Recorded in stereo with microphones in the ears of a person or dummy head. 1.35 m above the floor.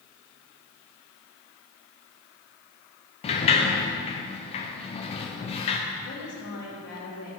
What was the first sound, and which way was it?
A sliding door, 35° left (ahead or behind).